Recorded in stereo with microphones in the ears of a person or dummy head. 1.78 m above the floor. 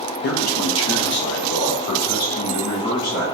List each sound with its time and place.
0.2 s a man speaking: 60° left (ahead or behind), 0.7 m; by 3.2 s 45° left (ahead or behind), 3 m